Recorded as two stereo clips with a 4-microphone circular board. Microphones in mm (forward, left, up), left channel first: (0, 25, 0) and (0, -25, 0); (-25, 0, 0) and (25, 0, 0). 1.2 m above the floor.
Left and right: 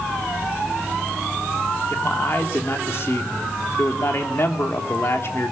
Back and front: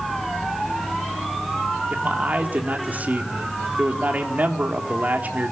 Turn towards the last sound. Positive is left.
turn(degrees=55)